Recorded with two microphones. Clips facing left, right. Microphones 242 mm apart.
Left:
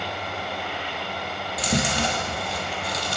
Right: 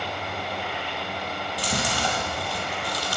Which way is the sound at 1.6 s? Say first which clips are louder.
Left 5 dB; 25° left (ahead or behind).